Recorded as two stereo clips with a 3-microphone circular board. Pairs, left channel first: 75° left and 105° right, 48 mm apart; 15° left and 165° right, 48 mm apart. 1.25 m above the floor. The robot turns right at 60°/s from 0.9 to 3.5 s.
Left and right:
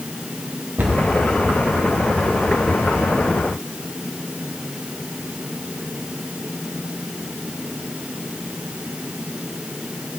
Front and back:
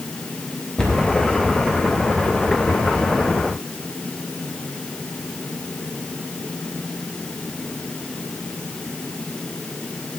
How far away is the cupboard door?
About 2 m.